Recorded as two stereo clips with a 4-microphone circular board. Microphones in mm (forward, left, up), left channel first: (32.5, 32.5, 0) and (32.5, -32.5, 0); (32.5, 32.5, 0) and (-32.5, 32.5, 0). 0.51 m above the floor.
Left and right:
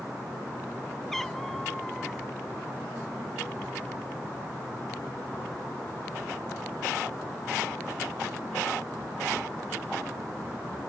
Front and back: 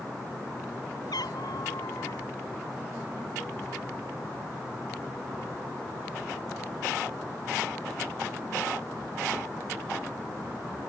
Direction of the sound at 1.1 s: 5° left.